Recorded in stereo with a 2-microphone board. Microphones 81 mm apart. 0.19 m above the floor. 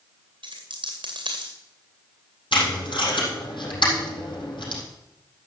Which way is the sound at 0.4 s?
90° right.